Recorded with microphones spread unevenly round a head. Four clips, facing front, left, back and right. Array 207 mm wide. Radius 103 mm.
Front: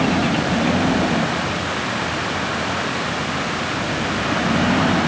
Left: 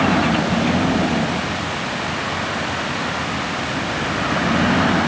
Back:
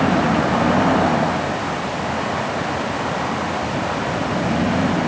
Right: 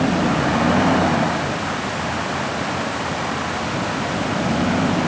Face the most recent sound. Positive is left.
No sound to turn to.